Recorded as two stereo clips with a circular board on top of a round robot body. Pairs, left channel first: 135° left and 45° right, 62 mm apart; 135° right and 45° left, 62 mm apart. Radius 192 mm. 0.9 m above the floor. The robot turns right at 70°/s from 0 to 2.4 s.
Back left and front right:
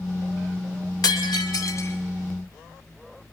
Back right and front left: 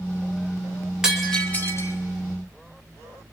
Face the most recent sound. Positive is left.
turn(degrees=-140)